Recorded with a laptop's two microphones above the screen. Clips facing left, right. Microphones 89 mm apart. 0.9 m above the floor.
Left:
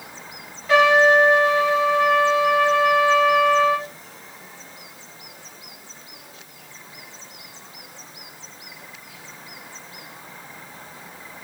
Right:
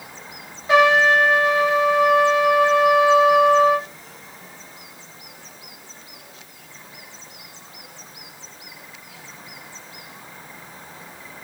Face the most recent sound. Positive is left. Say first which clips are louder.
# even
turn(degrees=-20)  # may be behind; listen again after turning